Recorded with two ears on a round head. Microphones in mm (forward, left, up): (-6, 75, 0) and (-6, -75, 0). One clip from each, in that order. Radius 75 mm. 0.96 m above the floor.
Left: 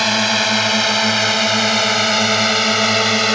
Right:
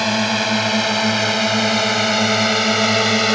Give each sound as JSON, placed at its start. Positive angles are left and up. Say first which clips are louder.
{"t": 0.0, "sound": "a drone", "louder": "left 3 dB", "side_deg": 30}